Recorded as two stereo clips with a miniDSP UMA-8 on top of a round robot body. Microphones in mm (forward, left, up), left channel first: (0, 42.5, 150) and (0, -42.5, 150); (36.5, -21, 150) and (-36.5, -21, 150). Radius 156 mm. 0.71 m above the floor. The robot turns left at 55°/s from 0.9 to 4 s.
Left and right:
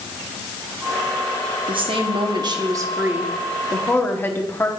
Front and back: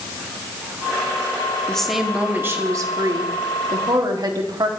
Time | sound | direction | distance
1.7 | a woman speaking | 80° right | 1.9 m